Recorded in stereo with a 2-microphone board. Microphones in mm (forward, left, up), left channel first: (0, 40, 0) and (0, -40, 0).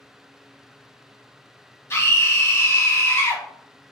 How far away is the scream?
About 1.7 m.